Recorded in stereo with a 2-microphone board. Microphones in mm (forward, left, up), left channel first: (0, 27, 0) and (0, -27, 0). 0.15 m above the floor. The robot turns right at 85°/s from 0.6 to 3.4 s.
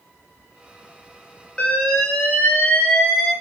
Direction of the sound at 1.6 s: 25° left.